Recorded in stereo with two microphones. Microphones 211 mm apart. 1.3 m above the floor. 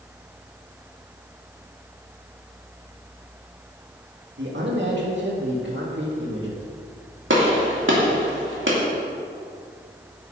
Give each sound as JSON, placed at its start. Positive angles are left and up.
{"t": 4.4, "sound": "a man speaking", "side_deg": -65, "distance_m": 2.5}
{"t": 7.3, "sound": "a gunshot", "side_deg": -85, "distance_m": 2.5}